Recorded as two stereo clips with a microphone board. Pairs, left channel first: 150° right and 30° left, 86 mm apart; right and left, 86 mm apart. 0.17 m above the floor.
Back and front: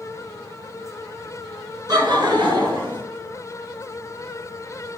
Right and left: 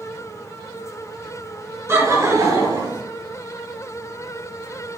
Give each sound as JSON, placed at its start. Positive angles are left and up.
{"t": 1.9, "sound": "laughter", "azimuth_deg": 35, "distance_m": 1.6}